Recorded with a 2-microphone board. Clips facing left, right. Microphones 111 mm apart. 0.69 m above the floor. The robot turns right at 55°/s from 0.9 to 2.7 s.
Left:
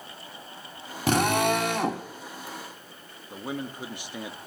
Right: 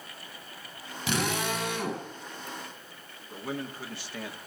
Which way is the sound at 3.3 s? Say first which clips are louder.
Left 2 dB; 15° left (ahead or behind).